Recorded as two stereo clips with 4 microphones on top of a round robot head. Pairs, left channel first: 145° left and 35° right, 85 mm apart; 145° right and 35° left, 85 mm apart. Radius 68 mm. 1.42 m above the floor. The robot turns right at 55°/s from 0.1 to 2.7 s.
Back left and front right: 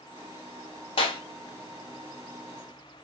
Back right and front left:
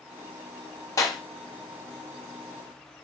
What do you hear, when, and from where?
1.0 s a clap: 160° left, 0.9 m; by 1.2 s 175° left, 0.9 m